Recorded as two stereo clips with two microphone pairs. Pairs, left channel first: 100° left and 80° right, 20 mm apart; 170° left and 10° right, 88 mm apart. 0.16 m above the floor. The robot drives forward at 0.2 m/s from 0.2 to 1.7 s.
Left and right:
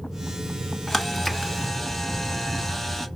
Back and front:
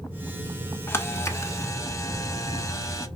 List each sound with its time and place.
0.9 s a camera shutter: straight behind, 0.7 m